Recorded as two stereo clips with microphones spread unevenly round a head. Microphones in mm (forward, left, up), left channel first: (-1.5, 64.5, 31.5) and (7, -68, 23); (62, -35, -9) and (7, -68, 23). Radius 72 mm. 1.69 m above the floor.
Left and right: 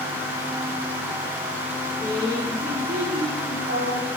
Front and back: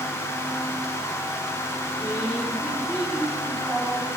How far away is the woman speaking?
About 6 m.